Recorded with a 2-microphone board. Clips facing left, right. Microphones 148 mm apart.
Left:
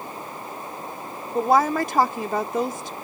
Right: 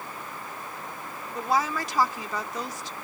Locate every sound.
0.0 s running water: 30° left (ahead or behind)
1.4 s a woman speaking: 55° left (ahead or behind)